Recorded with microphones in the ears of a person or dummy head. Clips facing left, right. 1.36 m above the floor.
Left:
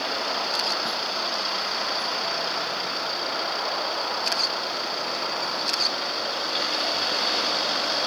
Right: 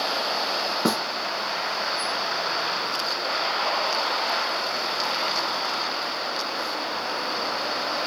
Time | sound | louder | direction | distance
0.8 | a snare drum | right 8 dB | 70° right (ahead or behind) | ?